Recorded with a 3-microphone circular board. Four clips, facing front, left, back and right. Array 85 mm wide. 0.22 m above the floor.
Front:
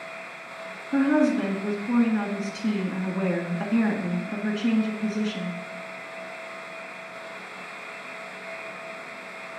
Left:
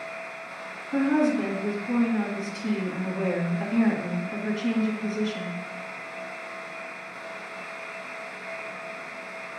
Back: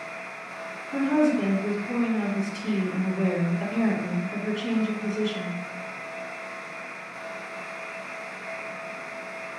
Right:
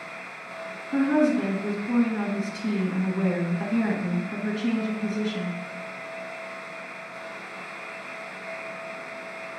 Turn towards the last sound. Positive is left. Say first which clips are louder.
# right 1 dB, front 1 dB
turn(degrees=-20)